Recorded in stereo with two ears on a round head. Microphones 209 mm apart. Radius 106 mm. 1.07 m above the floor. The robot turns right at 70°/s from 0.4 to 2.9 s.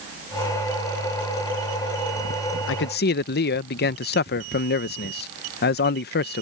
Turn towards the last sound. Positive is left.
turn(degrees=45)  # may be behind; listen again after turning